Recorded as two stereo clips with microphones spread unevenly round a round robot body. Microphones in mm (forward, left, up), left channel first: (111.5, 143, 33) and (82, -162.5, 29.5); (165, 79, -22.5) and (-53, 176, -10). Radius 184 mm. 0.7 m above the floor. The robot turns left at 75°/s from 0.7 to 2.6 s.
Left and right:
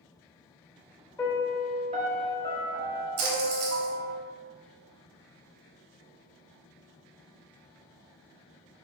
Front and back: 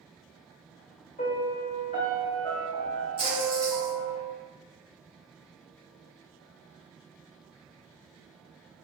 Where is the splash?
125° right, 0.9 m.